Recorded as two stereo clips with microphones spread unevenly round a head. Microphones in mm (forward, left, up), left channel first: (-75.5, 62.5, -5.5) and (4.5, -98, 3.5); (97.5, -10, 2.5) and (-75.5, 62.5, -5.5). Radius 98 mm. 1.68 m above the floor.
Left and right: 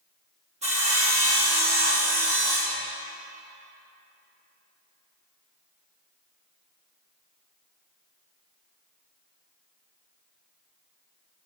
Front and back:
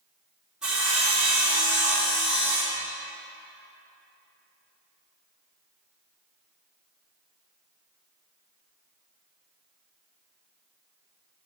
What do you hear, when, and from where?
0.6 s sawing: 115° right, 2.5 m